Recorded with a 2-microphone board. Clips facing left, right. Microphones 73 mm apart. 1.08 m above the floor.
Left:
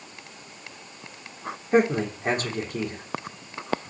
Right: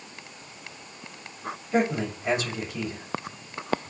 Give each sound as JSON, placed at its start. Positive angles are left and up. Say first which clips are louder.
{"t": 1.7, "sound": "a man speaking", "louder": "left 4 dB", "side_deg": 50, "distance_m": 3.5}